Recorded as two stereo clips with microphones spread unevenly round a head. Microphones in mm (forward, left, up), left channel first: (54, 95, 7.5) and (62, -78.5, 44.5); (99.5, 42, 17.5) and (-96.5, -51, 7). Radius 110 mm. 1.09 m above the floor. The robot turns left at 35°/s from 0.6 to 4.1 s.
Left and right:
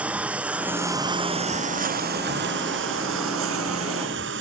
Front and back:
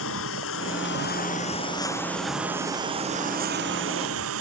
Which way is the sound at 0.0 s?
5° right.